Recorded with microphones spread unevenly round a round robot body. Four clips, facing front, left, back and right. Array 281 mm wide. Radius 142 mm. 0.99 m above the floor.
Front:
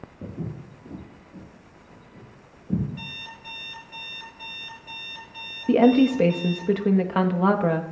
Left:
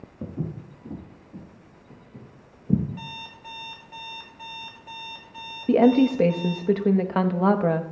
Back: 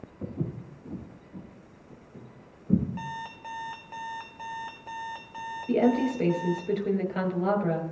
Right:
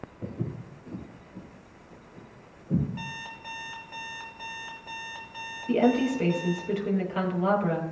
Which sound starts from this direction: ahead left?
A woman speaking, at 5.7 s.